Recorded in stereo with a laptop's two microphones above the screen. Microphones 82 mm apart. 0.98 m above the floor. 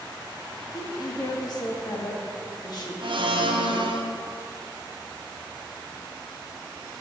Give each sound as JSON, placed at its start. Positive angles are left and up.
{"t": 0.7, "sound": "a woman speaking", "side_deg": 50, "distance_m": 1.7}
{"t": 3.0, "sound": "a blender", "side_deg": -70, "distance_m": 0.9}